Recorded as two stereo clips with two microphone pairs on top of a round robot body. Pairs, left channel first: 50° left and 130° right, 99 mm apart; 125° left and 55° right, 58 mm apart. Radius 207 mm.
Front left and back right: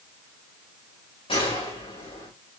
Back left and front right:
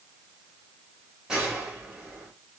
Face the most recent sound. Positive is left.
turn(degrees=25)